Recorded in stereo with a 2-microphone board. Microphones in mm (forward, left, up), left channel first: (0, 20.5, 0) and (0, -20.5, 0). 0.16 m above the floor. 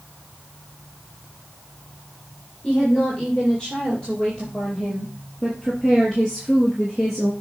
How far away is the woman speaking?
About 5.5 m.